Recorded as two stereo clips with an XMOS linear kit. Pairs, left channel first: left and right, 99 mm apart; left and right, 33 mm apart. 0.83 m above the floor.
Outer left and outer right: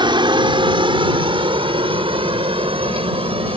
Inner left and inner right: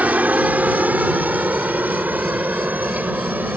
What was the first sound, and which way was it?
A helicopter, 50° right (ahead or behind).